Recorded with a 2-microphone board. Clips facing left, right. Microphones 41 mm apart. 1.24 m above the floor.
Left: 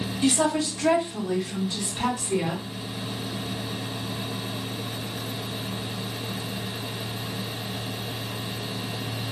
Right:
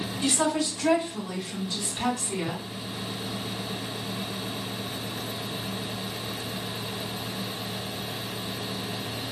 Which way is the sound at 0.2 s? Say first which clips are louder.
Left 3 dB; 20° left (ahead or behind).